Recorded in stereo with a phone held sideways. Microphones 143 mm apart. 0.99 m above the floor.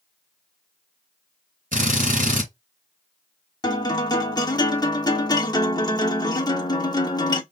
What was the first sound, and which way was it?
A drill, 65° right (ahead or behind).